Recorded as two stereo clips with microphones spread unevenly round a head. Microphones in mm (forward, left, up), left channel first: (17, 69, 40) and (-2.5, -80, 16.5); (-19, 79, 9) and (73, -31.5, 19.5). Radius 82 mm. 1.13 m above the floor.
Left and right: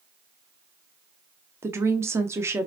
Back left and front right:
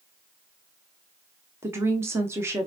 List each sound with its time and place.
1.6 s a woman speaking: 110° right, 0.5 m